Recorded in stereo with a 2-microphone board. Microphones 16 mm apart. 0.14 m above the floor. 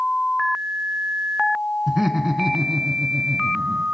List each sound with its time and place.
1.9 s laughter: 15° right (ahead or behind), 1.4 m